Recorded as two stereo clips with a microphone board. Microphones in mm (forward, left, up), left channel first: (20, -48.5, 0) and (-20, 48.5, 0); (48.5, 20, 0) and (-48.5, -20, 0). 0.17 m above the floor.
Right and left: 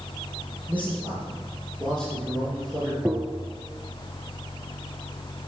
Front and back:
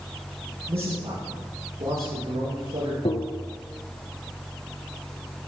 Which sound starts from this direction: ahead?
Tapping, at 3.0 s.